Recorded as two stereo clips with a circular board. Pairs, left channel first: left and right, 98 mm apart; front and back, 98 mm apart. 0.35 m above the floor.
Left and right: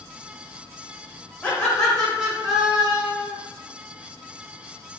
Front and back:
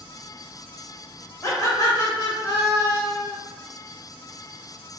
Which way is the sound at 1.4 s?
25° left.